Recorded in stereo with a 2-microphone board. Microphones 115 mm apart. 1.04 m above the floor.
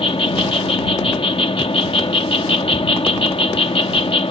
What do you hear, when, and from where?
0.0 s an insect: 55° left (ahead or behind)